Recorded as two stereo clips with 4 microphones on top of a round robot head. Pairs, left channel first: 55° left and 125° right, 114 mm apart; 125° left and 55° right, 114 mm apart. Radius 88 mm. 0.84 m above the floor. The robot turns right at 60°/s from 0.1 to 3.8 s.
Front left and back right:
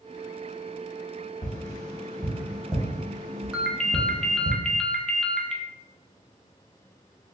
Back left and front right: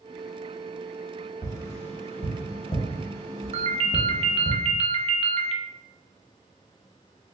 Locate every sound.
1.4 s tapping: 90° left, 1.4 m; by 4.5 s 130° right, 1.4 m
3.5 s a ringtone: 45° right, 0.6 m; by 5.6 s 30° right, 0.6 m